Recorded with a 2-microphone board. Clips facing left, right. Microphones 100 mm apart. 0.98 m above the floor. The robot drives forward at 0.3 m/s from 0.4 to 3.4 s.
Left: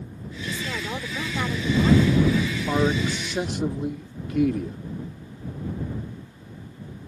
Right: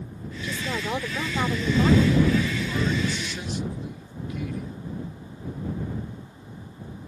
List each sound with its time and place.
0.4 s a woman speaking: 20° right (ahead or behind); by 2.2 s 25° right (ahead or behind)
2.7 s a man speaking: 55° left (ahead or behind); by 4.8 s 60° left (ahead or behind)